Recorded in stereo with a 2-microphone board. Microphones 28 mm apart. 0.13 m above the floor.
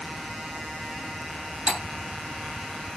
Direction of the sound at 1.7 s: 25° right (ahead or behind).